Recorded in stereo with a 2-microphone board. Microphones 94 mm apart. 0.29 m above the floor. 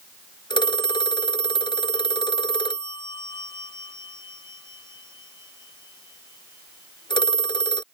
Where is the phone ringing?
55° left (ahead or behind).